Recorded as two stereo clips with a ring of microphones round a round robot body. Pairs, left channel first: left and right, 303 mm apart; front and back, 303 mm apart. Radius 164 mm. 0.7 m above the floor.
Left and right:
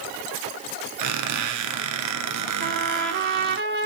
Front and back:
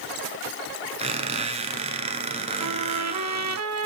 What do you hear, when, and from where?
1.0 s a squeak: 110° right, 1.4 m
2.6 s a trumpet: 145° right, 1.6 m